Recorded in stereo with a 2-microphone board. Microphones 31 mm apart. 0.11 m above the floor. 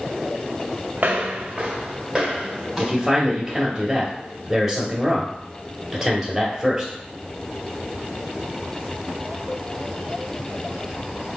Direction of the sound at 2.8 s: Centre (ahead or behind).